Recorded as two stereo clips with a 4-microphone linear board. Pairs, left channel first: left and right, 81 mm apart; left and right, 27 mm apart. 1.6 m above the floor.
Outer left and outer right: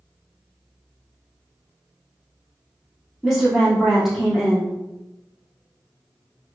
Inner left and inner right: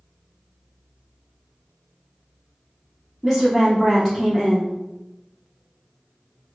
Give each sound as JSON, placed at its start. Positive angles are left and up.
{"t": 3.2, "sound": "a woman speaking", "side_deg": -5, "distance_m": 0.8}